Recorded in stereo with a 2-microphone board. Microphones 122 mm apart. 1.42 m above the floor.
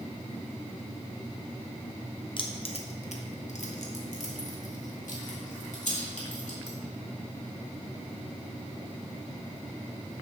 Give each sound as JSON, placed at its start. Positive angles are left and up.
{"t": 2.4, "sound": "keys jangling", "side_deg": 40, "distance_m": 0.9}